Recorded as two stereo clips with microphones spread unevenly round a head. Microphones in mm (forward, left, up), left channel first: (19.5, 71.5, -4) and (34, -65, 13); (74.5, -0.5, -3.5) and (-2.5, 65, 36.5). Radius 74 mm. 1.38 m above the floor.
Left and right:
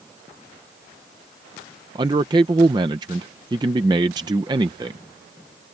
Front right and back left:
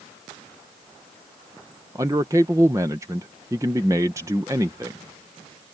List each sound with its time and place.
1.9 s a man speaking: 150° right